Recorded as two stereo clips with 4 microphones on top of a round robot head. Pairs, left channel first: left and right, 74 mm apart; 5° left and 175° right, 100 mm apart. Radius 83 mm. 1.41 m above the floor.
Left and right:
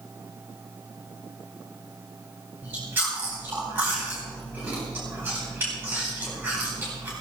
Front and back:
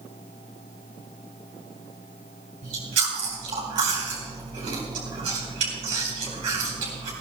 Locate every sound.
2.6 s chewing: 155° right, 4 m